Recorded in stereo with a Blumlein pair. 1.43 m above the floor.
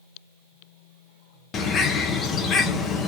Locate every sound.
1.5 s a bird: 25° left, 0.8 m